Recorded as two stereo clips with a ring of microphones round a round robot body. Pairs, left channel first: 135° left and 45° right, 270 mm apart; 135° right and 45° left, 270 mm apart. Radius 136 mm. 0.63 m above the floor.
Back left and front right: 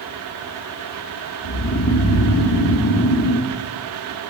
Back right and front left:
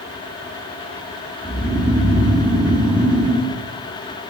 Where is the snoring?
130° left, 1.2 m.